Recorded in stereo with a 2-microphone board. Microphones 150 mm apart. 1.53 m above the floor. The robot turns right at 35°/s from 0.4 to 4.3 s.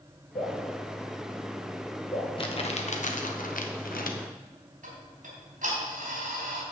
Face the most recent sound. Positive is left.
turn(degrees=-65)  # may be behind; listen again after turning